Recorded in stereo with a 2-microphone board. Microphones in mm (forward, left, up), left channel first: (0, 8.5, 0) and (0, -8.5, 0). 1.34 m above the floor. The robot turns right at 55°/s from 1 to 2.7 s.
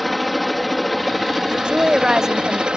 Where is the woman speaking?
65° right; by 2.7 s 5° right.